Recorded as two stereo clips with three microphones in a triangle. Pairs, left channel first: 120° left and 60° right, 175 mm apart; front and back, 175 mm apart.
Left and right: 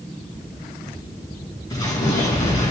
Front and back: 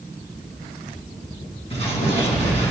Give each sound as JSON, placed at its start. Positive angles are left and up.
{"t": 1.7, "sound": "an explosion", "azimuth_deg": 50, "distance_m": 3.0}